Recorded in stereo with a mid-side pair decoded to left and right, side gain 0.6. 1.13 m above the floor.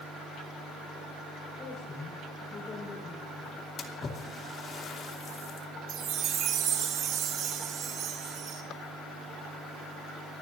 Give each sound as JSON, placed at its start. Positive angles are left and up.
{"t": 1.6, "sound": "a woman speaking", "azimuth_deg": 40, "distance_m": 4.5}
{"t": 3.8, "sound": "a splash", "azimuth_deg": 45, "distance_m": 2.5}
{"t": 5.9, "sound": "a chime", "azimuth_deg": -50, "distance_m": 2.5}